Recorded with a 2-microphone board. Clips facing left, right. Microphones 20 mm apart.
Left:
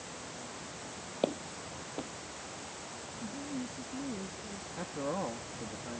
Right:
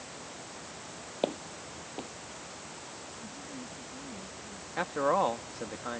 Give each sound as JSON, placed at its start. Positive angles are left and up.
{"t": 1.2, "sound": "footsteps", "side_deg": -15}
{"t": 3.2, "sound": "a woman speaking", "side_deg": 60}
{"t": 4.8, "sound": "a man speaking", "side_deg": -60}